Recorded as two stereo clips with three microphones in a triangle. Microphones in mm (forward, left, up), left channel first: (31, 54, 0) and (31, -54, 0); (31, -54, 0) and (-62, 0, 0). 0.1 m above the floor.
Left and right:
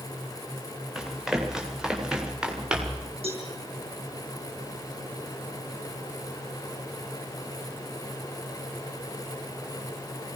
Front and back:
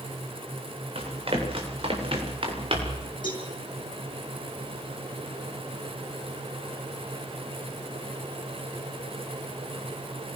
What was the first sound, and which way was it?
Running footsteps, 175° right.